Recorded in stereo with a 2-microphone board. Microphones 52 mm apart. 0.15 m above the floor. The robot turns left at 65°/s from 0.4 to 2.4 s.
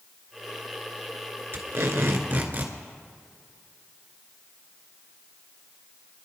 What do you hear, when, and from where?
1.5 s tape being pulled: 75° right, 1.8 m; by 2.8 s 135° right, 1.8 m